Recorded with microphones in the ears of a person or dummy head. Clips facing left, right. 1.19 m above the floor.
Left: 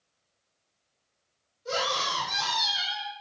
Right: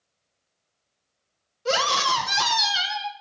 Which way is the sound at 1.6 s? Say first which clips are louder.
Right 6 dB; 80° right.